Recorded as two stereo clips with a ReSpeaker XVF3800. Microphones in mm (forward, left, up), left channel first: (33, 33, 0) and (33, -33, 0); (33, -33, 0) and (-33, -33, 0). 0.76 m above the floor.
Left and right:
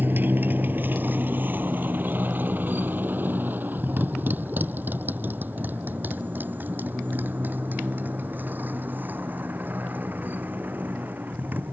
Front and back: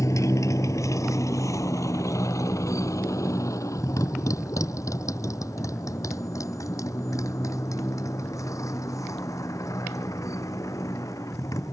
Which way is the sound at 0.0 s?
35° right.